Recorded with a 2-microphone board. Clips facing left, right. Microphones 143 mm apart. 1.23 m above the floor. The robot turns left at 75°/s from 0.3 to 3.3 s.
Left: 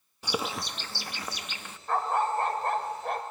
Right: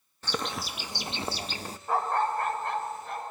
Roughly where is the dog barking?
Behind.